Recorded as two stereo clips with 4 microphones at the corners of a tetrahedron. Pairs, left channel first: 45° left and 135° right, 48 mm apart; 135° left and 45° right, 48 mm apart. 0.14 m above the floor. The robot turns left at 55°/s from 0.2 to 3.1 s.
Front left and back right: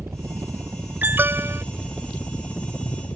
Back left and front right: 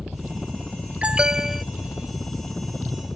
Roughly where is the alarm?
Right.